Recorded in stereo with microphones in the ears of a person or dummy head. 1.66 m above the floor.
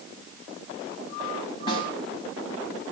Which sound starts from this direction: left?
A snare drum, at 1.7 s.